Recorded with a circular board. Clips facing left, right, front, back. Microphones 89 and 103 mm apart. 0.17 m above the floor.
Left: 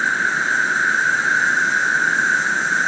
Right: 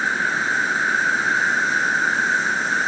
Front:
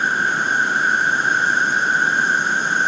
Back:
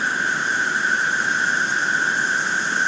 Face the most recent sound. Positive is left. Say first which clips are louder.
# left 2 dB, front 3 dB
turn(degrees=30)